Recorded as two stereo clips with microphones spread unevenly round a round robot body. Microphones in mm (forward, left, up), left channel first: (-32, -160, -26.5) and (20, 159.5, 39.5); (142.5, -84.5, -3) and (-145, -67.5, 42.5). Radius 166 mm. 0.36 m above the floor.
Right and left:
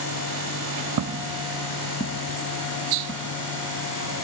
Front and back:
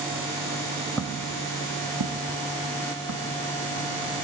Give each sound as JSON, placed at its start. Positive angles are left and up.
{"t": 1.0, "sound": "footsteps", "azimuth_deg": 90, "distance_m": 0.7}